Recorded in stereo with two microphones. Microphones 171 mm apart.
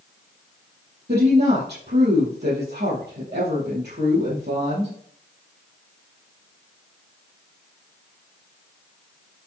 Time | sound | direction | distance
1.1 | a woman speaking | 75° right (ahead or behind) | 5 m